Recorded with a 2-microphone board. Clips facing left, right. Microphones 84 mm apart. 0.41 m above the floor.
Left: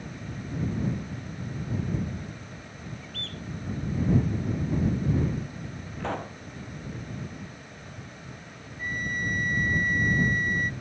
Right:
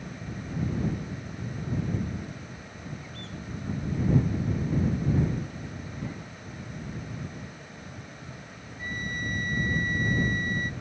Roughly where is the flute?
Left.